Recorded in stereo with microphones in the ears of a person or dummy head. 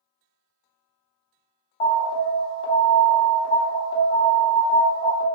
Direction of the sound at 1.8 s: 30° left (ahead or behind).